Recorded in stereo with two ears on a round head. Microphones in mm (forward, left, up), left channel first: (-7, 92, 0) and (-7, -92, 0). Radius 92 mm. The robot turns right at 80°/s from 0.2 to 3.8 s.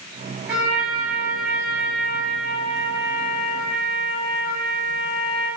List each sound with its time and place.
0.5 s a trumpet: 170° right, 1.9 m; by 5.5 s 95° left, 1.9 m